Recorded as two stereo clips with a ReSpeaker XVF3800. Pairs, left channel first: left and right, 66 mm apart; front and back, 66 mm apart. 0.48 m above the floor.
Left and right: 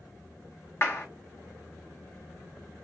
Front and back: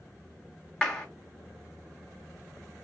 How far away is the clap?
About 1.1 m.